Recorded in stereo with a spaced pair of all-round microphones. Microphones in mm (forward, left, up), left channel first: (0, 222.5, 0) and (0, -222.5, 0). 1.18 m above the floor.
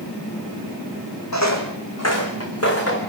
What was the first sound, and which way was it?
Footsteps, 35° left (ahead or behind).